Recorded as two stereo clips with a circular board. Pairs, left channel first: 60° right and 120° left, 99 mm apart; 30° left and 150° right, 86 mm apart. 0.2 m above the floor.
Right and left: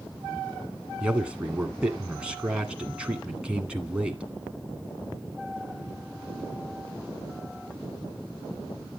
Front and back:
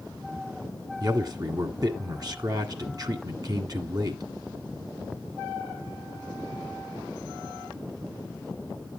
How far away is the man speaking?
About 1.5 m.